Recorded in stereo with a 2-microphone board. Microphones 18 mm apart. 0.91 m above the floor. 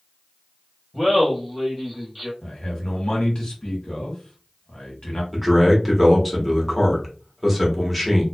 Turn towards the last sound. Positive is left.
turn(degrees=-10)  # may be behind; listen again after turning